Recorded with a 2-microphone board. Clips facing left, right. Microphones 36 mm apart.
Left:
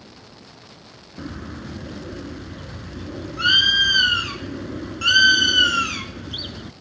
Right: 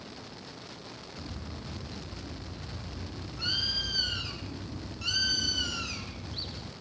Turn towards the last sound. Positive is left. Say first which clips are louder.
# left 12 dB
turn(degrees=80)